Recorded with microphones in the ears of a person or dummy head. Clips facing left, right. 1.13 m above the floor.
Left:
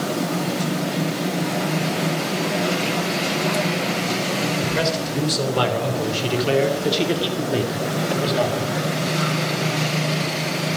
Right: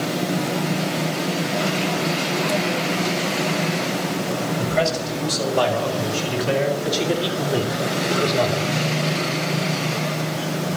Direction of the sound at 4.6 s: 65° left (ahead or behind).